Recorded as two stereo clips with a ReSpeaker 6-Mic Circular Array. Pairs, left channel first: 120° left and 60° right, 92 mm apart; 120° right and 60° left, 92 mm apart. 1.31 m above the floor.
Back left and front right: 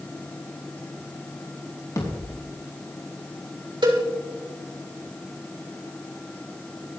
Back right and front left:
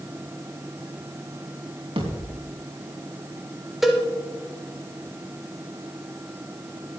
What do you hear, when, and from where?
2.0 s a thud: 70° left, 4.5 m
3.8 s a cowbell: 25° right, 3 m